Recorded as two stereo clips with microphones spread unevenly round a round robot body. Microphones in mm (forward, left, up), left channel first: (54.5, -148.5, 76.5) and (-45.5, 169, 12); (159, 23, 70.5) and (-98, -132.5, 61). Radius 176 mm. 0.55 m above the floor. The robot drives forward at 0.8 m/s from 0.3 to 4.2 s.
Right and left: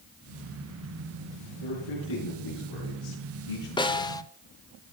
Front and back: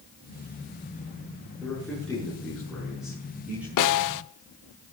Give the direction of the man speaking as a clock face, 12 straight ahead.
2 o'clock.